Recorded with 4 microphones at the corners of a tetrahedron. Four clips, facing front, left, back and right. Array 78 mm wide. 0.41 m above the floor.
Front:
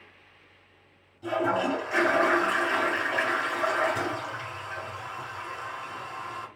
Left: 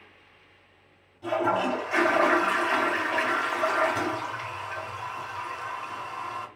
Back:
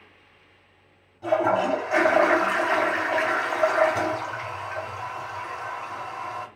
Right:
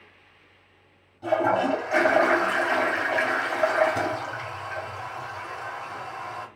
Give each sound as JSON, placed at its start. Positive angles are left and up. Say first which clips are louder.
{"t": 1.2, "sound": "a toilet flushing", "louder": "right 3 dB, back 4 dB", "azimuth_deg": -150, "distance_m": 2.0}